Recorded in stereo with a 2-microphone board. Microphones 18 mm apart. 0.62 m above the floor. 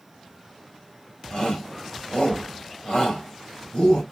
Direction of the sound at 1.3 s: 40° left (ahead or behind).